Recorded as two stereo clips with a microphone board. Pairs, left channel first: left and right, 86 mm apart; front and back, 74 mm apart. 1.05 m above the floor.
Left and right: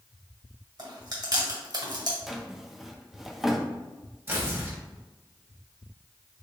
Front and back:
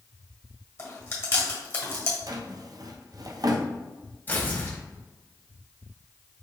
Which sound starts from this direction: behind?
A drawer, at 2.3 s.